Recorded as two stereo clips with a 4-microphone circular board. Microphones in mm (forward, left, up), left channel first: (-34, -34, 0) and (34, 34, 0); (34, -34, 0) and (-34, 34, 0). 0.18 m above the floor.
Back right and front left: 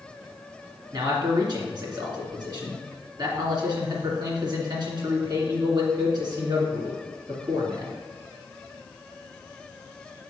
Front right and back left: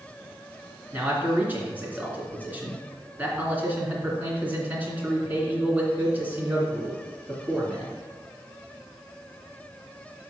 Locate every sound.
0.9 s a man speaking: 70° left, 2.5 m